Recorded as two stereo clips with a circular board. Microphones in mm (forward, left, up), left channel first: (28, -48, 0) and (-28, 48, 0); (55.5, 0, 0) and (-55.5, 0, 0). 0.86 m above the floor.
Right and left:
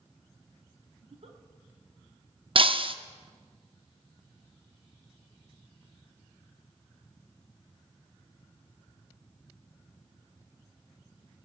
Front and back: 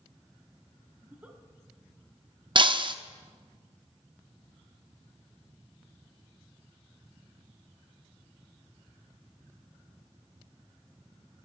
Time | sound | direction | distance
1.0 | a giggle | 105° left | 1.2 m
2.5 | breaking glass | 145° left | 0.5 m